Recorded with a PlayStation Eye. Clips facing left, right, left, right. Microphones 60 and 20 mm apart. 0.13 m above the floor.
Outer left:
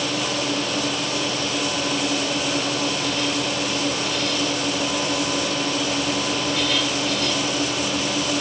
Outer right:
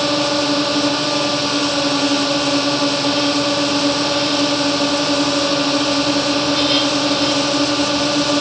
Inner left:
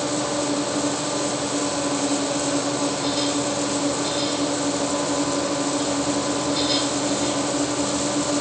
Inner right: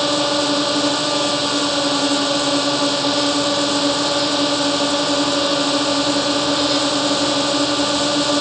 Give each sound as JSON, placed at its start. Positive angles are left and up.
{"t": 0.0, "sound": "a drone", "side_deg": -65}